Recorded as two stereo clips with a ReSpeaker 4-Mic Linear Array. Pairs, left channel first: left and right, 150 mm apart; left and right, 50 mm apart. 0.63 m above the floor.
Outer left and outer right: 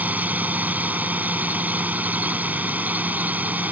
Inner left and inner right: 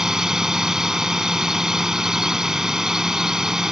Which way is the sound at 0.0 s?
10° right (ahead or behind).